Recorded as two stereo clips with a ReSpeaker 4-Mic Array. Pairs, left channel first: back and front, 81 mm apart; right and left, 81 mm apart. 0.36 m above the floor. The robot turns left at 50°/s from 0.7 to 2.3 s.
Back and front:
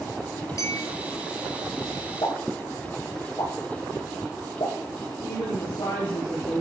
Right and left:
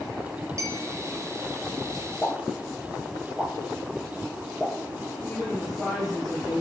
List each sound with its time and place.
0.6 s a clink: 135° left, 3 m; by 0.9 s 125° left, 3 m
2.2 s a pop: 175° right, 8 m; by 4.7 s straight behind, 8 m
5.2 s a woman speaking: straight behind, 6.5 m